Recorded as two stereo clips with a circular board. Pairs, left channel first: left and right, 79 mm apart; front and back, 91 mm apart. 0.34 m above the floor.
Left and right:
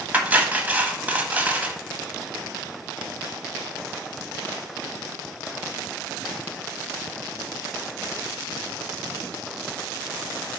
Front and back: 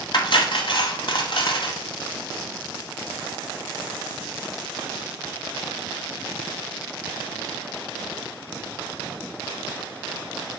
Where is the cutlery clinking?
20° right, 1.2 m.